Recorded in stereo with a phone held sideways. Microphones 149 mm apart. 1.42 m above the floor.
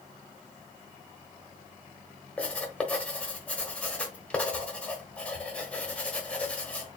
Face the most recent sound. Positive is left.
turn(degrees=10)  # may be behind; listen again after turning